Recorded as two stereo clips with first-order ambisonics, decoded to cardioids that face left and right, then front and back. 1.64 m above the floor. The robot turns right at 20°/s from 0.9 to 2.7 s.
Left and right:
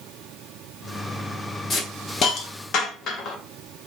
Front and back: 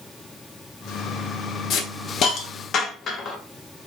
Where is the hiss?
30° left, 0.7 m; by 3.4 s 50° left, 0.7 m.